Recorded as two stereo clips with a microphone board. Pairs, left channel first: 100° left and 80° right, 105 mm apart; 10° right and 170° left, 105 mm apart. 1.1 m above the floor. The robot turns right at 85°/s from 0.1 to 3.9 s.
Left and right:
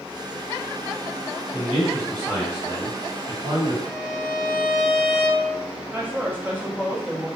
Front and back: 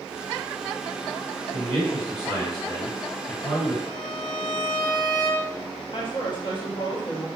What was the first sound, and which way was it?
A man speaking, 125° left.